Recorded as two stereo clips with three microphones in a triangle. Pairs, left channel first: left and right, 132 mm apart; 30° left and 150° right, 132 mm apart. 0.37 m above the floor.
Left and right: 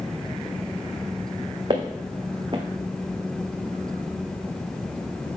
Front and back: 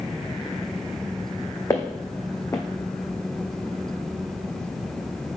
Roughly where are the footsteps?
Ahead right.